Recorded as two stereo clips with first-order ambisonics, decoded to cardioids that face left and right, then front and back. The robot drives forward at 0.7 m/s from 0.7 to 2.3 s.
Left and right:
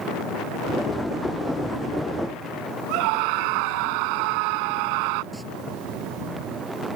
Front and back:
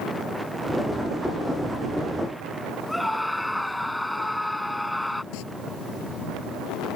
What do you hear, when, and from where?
2.9 s a scream: 85° right
5.3 s singing: straight ahead